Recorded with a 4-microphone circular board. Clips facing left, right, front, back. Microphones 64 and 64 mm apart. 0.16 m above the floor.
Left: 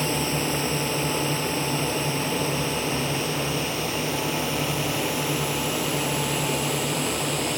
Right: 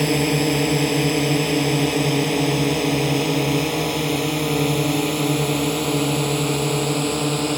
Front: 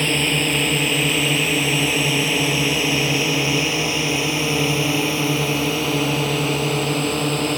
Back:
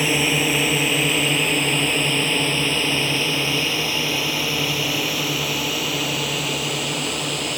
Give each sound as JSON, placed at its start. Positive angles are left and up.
{"t": 0.0, "sound": "a drone", "azimuth_deg": -100}